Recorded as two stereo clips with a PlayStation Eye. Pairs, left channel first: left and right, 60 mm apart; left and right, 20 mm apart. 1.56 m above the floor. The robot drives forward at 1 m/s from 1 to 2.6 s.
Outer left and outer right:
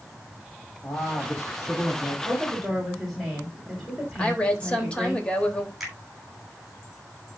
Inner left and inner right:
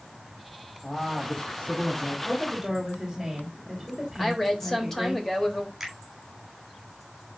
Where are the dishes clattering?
I don't hear dishes clattering.